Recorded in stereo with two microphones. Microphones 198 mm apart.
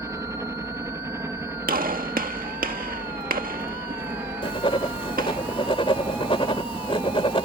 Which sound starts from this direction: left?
Writing, at 4.4 s.